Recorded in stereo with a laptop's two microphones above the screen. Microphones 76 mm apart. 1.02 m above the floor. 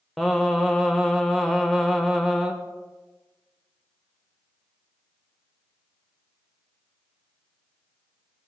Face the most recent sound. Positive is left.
turn(degrees=0)  # may be behind; listen again after turning